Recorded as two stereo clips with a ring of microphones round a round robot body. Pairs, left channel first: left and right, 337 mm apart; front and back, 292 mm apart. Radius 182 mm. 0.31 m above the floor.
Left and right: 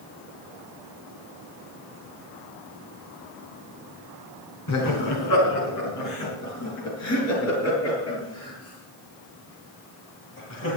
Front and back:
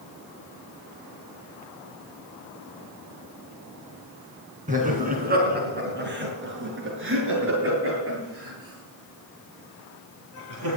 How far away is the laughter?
About 4.5 m.